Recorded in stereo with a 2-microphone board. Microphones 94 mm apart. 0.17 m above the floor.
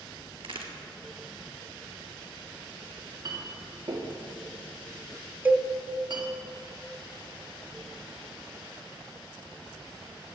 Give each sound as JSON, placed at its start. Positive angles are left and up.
{"t": 0.4, "sound": "a crack", "side_deg": -70, "distance_m": 1.9}
{"t": 3.0, "sound": "a clink", "side_deg": -55, "distance_m": 2.0}
{"t": 5.5, "sound": "a cowbell", "side_deg": -20, "distance_m": 0.8}